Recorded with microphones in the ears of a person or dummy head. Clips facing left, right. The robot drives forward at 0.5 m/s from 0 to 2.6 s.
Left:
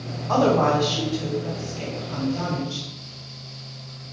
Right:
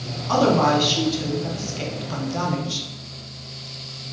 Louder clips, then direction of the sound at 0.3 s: Right 1 dB; 35° right (ahead or behind).